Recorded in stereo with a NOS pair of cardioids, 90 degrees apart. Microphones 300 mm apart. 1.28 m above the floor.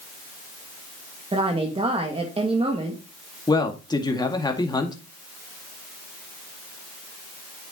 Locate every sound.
1.3 s a woman speaking: 20° right, 2 m
3.5 s a man speaking: 15° left, 2 m